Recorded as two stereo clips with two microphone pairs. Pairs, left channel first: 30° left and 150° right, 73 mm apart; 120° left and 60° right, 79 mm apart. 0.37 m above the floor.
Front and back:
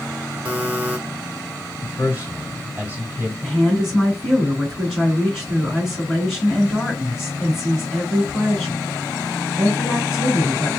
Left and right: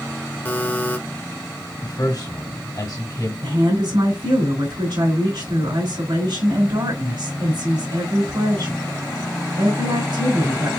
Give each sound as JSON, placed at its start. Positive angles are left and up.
{"t": 0.5, "sound": "a buzzer", "azimuth_deg": 160, "distance_m": 1.1}
{"t": 1.8, "sound": "a man speaking", "azimuth_deg": 145, "distance_m": 2.5}
{"t": 3.4, "sound": "a woman speaking", "azimuth_deg": -65, "distance_m": 3.0}